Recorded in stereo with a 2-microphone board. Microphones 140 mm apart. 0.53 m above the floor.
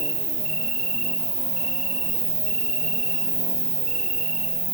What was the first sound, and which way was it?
An insect, 5° left (ahead or behind).